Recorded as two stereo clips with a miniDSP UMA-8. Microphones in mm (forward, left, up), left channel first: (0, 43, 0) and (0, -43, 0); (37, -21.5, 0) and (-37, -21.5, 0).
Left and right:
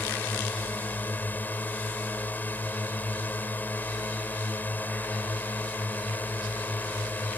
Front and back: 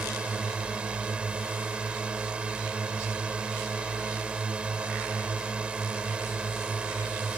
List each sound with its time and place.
0.0 s a drone: 125° left